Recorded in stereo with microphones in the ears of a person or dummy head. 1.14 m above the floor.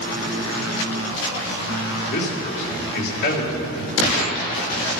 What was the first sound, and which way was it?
A man speaking, 60° left (ahead or behind).